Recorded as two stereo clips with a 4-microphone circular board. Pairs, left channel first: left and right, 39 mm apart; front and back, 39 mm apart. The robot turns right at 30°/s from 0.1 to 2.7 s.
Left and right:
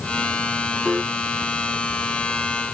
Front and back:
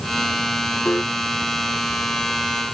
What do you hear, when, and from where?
0.8 s a piano: 15° right; by 1.1 s 10° right